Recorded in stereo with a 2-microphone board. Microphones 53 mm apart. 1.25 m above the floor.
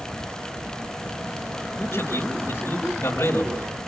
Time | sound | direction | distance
1.8 | a man speaking | 60° left (ahead or behind) | 4.5 m